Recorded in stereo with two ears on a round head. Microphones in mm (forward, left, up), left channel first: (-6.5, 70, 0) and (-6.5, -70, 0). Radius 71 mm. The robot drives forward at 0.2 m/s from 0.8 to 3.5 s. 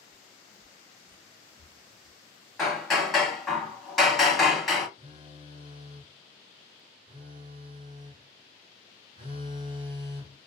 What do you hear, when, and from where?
0.1 s footsteps: 10° right (ahead or behind), 0.9 m; by 2.2 s 50° left (ahead or behind), 1.2 m
2.6 s hammering: centre (ahead or behind), 0.7 m
5.0 s a phone buzzing: 35° right (ahead or behind), 0.6 m